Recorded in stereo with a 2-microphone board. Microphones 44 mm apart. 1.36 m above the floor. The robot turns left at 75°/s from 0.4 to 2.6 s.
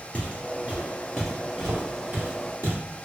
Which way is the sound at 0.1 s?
30° left (ahead or behind).